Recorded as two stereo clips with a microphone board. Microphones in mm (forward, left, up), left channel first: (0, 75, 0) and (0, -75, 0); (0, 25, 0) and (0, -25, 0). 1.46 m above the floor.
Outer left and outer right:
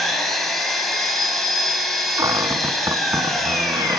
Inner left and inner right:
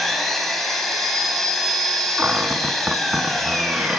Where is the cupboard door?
25° right (ahead or behind), 1.7 m.